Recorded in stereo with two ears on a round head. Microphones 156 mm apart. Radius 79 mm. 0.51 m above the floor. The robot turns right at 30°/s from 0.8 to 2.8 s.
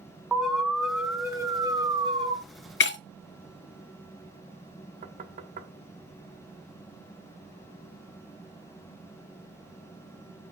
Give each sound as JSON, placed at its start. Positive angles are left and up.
{"t": 0.3, "sound": "an alarm", "azimuth_deg": -175, "distance_m": 1.2}
{"t": 2.8, "sound": "breaking glass", "side_deg": 70, "distance_m": 0.6}
{"t": 5.0, "sound": "knocking", "side_deg": -40, "distance_m": 1.5}